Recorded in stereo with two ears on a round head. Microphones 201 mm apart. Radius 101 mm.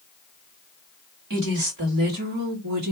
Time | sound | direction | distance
1.3 | a woman speaking | 65° right (ahead or behind) | 2 m